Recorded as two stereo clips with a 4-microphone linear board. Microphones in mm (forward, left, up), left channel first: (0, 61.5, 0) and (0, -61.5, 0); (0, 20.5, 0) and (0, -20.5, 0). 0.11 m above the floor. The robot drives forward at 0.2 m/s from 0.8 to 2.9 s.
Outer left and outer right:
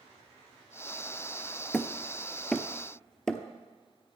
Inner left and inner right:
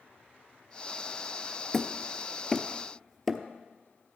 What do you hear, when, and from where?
1.7 s hammering: 5° left (ahead or behind), 0.6 m